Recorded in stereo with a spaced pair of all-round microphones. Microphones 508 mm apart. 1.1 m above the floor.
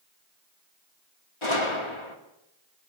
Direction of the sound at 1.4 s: 60° left (ahead or behind).